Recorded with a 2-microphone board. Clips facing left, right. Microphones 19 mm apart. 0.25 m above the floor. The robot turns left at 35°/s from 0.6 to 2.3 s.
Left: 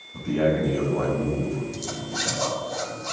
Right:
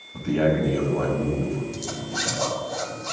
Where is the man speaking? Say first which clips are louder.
Right 1 dB; 85° right, 1.3 m; by 1.6 s 120° right, 1.3 m.